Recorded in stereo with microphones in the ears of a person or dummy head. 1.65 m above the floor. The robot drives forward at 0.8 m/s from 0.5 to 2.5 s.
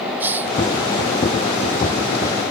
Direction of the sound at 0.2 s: 10° right (ahead or behind).